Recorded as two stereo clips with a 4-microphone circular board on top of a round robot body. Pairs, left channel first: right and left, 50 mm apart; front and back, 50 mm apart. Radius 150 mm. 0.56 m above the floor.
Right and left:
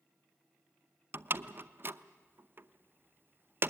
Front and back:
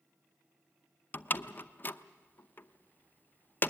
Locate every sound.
1.1 s a door slam: 50° left, 0.8 m